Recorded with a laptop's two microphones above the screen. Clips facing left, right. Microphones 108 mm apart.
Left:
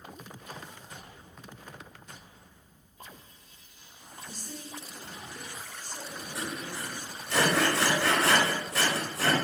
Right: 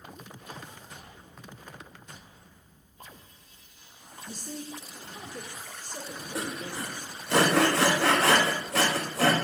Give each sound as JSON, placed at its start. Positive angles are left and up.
{"t": 4.3, "sound": "a man speaking", "side_deg": -50, "distance_m": 1.0}
{"t": 6.3, "sound": "sawing", "side_deg": -80, "distance_m": 1.0}